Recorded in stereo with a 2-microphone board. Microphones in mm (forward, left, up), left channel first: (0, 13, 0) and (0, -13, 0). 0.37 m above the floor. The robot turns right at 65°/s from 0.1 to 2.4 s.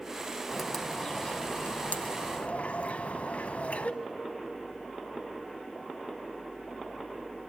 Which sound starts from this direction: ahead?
A bird, at 0.5 s.